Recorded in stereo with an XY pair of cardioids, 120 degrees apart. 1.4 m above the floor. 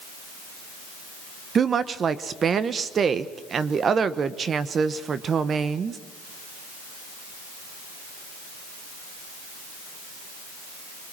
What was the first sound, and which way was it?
A woman speaking, 40° right.